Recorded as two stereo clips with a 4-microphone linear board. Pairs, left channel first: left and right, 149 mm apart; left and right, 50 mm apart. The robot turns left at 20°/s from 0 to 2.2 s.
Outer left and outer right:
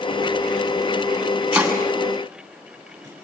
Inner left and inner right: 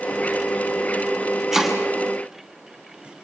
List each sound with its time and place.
1.5 s chopping: 5° right (ahead or behind), 7.5 m; by 3.2 s 20° right (ahead or behind), 7.5 m